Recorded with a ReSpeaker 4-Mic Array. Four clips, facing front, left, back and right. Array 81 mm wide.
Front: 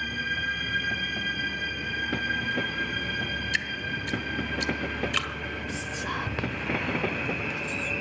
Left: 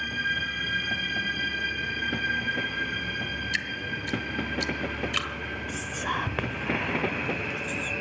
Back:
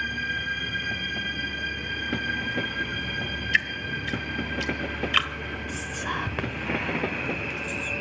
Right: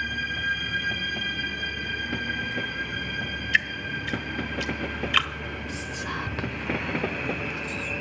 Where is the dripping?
130° right, 1.3 m.